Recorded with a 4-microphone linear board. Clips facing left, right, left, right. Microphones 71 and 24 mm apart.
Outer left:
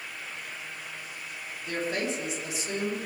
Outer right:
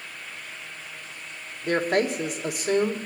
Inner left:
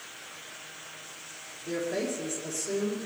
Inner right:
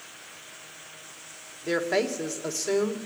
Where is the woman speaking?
55° right (ahead or behind), 1.7 m.